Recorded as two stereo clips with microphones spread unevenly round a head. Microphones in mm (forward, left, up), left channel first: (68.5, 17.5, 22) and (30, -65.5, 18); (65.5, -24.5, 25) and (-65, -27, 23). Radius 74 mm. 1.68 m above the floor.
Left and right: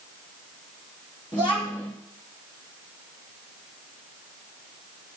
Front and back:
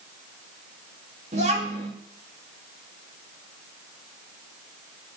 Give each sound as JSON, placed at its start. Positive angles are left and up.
{"t": 1.3, "sound": "a child speaking", "azimuth_deg": 130, "distance_m": 2.0}